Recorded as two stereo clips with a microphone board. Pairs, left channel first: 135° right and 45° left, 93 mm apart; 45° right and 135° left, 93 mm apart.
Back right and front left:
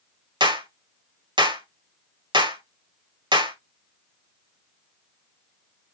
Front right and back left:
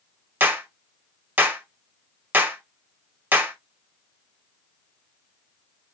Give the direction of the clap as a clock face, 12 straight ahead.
10 o'clock.